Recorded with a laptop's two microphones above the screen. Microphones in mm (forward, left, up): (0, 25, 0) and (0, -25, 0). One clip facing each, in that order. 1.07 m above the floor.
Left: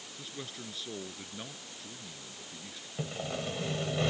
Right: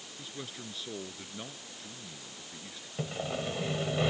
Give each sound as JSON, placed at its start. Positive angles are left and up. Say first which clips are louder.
{"t": 0.2, "sound": "a man speaking", "louder": "even", "side_deg": 0}
{"t": 3.0, "sound": "sawing", "louder": "right 2 dB", "side_deg": -10}